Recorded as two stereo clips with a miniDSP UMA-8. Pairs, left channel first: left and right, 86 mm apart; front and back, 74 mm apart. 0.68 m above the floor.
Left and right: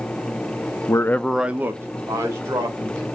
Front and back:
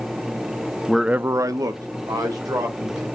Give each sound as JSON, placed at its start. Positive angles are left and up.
{"t": 0.9, "sound": "a man speaking", "azimuth_deg": 85, "distance_m": 0.6}